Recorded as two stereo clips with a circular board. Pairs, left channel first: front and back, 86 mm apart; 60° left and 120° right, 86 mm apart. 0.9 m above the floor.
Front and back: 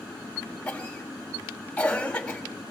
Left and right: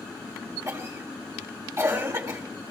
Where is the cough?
75° right, 2 m.